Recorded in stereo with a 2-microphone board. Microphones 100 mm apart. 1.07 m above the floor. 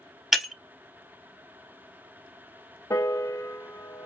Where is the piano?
30° left (ahead or behind), 1.2 m.